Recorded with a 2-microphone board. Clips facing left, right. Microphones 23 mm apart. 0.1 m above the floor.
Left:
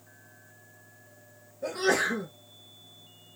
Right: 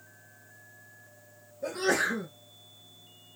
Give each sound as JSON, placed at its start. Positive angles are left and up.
{"t": 1.6, "sound": "a sneeze", "side_deg": 15, "distance_m": 1.3}